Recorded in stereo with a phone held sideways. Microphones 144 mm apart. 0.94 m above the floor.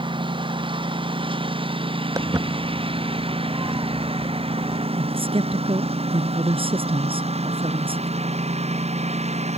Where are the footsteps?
20° right (ahead or behind).